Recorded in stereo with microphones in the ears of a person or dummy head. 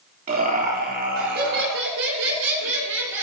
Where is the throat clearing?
I don't hear throat clearing.